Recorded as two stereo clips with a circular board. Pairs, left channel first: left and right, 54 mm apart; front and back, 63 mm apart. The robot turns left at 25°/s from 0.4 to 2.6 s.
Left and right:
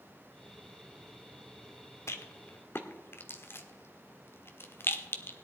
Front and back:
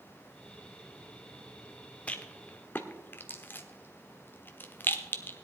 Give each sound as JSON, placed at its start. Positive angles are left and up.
{"t": 2.1, "sound": "a rattle", "azimuth_deg": 65, "distance_m": 1.2}